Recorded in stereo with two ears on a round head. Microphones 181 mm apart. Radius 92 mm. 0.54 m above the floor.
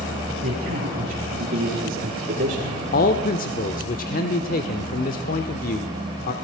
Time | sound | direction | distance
0.4 | a man speaking | 45° right (ahead or behind) | 8.5 m
2.9 | a man speaking | 45° left (ahead or behind) | 1.2 m